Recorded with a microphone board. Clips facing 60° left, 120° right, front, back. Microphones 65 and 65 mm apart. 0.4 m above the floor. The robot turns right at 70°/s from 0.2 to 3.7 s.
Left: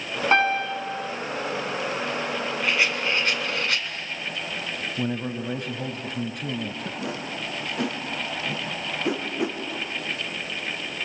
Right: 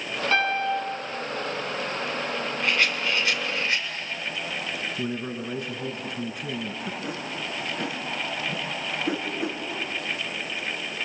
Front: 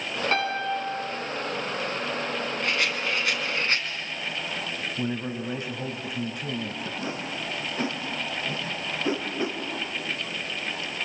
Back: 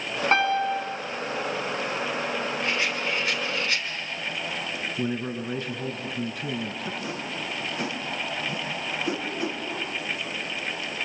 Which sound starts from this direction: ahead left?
A whoosh, at 7.0 s.